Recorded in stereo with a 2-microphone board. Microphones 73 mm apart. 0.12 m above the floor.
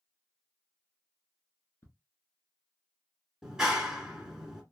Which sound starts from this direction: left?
Ticking, at 1.8 s.